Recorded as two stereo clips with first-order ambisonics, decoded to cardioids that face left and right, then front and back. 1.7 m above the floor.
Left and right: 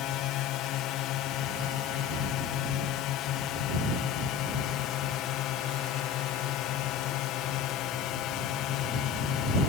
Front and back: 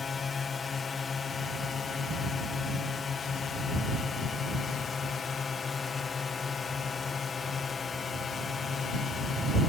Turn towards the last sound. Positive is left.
turn(degrees=65)